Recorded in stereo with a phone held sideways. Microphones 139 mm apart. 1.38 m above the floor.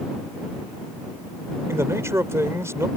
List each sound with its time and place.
1.7 s a man speaking: 20° right (ahead or behind)